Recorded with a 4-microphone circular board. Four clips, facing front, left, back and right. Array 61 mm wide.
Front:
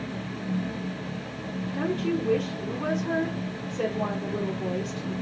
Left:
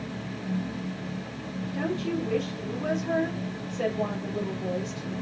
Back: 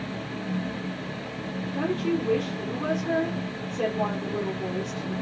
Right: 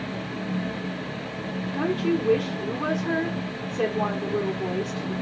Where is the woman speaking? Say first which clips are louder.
Right 5 dB, back 1 dB; 100° right, 2 m.